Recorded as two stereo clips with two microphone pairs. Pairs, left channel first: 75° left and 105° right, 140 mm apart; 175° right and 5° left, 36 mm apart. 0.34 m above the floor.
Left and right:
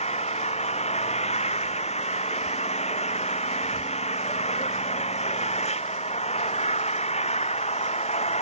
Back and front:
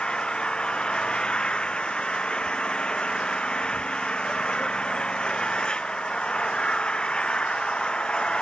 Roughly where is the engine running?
Behind left.